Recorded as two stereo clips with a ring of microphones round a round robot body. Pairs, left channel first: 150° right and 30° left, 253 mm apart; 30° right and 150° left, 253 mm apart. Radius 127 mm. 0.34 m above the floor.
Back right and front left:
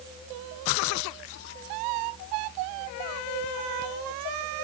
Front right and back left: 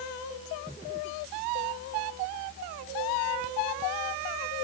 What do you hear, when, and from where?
Only background noise.